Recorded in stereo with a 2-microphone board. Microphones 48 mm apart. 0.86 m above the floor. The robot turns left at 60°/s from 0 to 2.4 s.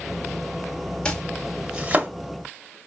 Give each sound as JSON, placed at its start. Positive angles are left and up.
{"t": 1.1, "sound": "chopping", "side_deg": 20, "distance_m": 0.6}